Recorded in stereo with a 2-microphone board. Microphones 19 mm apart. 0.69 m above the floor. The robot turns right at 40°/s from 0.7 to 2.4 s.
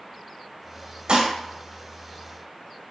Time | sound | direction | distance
1.1 | dishes clattering | 50° right (ahead or behind) | 0.9 m